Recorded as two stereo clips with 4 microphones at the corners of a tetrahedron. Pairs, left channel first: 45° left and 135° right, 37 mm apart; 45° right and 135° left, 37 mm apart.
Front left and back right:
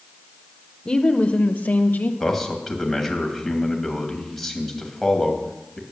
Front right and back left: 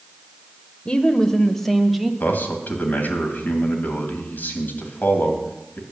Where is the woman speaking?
5° right, 1.0 m; by 2.1 s 50° left, 1.3 m.